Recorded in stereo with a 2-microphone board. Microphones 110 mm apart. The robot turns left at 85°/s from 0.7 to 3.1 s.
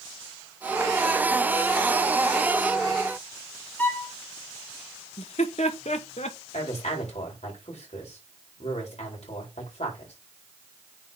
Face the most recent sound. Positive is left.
turn(degrees=75)  # may be behind; listen again after turning